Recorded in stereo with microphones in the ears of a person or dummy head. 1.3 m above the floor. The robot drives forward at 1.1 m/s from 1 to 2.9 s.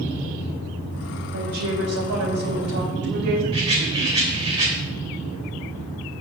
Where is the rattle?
30° right (ahead or behind), 3.5 m.